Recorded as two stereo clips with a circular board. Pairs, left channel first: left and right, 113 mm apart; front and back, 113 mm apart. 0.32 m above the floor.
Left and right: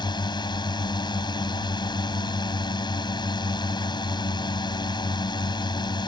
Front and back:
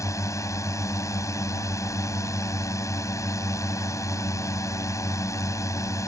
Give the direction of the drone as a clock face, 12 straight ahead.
10 o'clock.